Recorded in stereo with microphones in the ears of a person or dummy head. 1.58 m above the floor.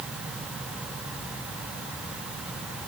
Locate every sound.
Only background noise.